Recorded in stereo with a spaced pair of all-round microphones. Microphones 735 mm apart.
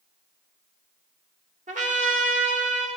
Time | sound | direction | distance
1.7 | a trumpet | 10° right (ahead or behind) | 1.2 m